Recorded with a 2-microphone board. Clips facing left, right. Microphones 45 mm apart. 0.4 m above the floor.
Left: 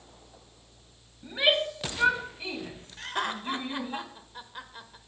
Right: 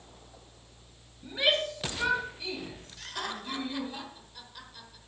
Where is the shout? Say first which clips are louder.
Left 2 dB; 15° left (ahead or behind), 2.5 m; by 4.0 s 40° left (ahead or behind), 3 m.